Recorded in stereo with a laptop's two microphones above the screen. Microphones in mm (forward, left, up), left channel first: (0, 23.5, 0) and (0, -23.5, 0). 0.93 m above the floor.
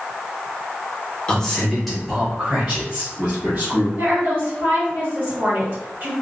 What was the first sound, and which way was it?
A man speaking, 20° left (ahead or behind).